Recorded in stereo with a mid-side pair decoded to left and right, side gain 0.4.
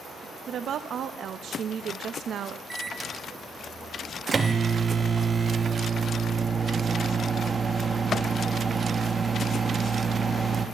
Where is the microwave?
35° right, 1.0 m.